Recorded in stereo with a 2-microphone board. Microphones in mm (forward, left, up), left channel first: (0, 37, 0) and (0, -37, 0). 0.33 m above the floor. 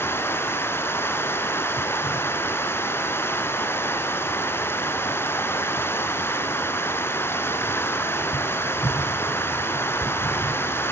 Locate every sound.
0.0 s running water: 30° left (ahead or behind), 2 m